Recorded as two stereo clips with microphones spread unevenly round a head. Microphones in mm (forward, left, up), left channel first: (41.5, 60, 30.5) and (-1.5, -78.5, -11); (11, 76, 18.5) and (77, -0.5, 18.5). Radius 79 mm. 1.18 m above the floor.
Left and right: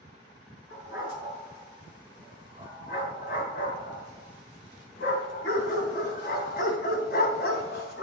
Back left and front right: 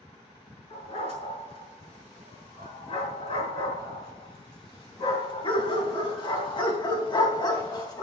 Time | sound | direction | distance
0.7 | a dog barking | 110° left | 6.5 m